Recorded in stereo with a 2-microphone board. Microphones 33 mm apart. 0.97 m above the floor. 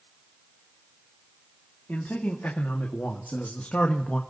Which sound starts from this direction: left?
A man speaking, at 1.9 s.